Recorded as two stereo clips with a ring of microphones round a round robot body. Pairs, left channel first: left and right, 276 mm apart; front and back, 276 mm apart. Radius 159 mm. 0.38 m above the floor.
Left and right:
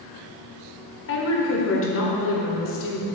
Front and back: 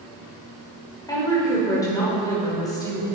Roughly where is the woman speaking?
Left.